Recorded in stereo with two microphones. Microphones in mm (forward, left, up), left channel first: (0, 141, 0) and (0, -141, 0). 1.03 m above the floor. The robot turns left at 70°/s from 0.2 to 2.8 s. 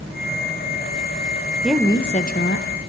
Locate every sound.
1.6 s a woman speaking: 175° right, 0.9 m; by 2.7 s 115° left, 0.9 m